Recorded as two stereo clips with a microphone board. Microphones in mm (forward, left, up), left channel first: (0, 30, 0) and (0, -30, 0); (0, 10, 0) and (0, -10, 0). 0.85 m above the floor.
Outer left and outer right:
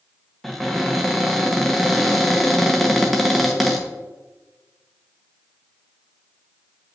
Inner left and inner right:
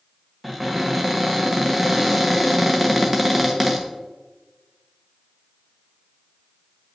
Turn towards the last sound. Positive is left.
turn(degrees=0)  # may be behind; listen again after turning